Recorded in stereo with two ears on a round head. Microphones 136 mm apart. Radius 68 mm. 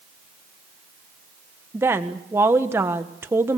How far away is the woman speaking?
About 1.4 m.